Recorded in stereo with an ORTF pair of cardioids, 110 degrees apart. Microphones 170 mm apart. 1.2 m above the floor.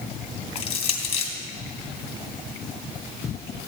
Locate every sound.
0.6 s crushing: 35° left, 2.5 m